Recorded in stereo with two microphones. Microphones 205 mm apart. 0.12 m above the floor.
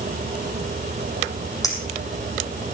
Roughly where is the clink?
Centre.